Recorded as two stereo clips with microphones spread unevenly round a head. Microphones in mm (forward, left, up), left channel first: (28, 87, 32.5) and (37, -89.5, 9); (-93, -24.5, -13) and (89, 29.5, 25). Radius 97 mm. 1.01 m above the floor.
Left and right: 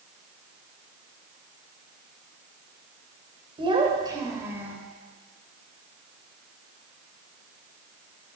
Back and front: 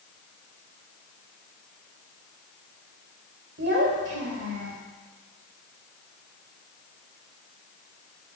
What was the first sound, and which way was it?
A child speaking, 25° right.